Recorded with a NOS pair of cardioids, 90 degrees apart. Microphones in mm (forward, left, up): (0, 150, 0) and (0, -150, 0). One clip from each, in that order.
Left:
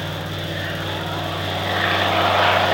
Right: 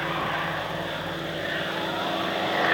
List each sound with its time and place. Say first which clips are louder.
0.0 s a fan: right 1 dB; 50° left, 0.8 m